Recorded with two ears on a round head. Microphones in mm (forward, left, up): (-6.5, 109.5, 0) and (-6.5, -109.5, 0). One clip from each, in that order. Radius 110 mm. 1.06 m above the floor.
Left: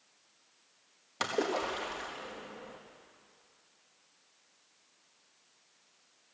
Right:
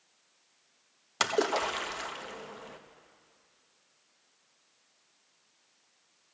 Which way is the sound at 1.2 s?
45° right (ahead or behind).